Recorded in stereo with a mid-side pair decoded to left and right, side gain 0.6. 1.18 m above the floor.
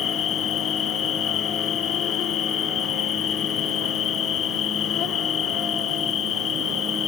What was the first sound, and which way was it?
An insect, 50° left.